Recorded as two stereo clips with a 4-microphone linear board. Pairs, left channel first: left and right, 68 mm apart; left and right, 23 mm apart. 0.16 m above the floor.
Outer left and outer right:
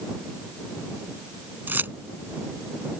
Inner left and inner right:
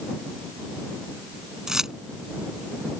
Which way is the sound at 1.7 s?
30° right (ahead or behind).